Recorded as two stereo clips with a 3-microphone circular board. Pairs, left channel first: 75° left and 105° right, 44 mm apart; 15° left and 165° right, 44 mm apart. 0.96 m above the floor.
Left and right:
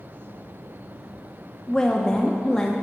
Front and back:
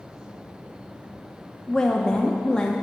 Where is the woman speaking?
40° left, 0.6 m.